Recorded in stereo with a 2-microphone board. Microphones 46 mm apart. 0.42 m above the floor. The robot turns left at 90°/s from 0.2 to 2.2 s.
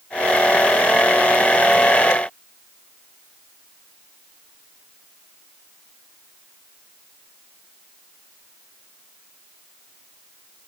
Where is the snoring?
No snoring in this recording.